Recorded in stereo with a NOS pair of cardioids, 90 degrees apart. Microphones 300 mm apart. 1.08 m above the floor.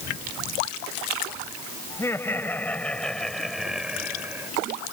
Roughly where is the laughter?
Ahead.